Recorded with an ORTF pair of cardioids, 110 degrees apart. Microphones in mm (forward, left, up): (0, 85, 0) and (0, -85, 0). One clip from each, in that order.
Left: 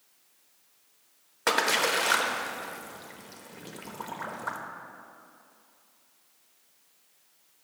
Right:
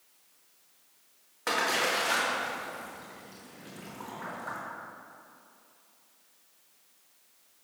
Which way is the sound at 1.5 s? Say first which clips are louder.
Left 3 dB; 40° left.